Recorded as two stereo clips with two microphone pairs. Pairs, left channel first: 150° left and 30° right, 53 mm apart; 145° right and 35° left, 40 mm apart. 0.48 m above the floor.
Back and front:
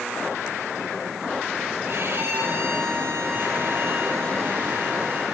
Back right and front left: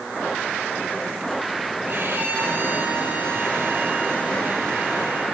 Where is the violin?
5° left, 5 m.